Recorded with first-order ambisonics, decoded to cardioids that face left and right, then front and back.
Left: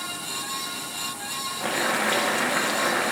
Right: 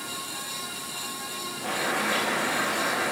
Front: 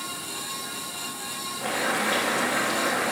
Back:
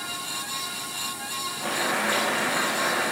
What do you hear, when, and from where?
1.6 s boiling: 100° left, 1.5 m